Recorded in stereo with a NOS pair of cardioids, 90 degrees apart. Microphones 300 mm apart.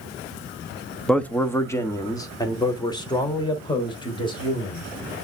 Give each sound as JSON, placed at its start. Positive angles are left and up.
{"t": 1.1, "sound": "a man speaking", "azimuth_deg": 5, "distance_m": 1.0}